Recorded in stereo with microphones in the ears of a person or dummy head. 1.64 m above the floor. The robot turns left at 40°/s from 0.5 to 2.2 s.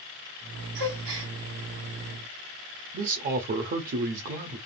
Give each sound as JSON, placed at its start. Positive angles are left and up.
{"t": 0.8, "sound": "a gasp", "side_deg": -55, "distance_m": 1.3}
{"t": 2.9, "sound": "a man speaking", "side_deg": -45, "distance_m": 0.6}